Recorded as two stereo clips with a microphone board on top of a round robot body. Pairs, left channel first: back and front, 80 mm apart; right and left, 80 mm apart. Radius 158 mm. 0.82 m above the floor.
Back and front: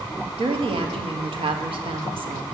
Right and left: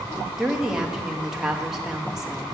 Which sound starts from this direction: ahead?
A woman speaking, at 0.4 s.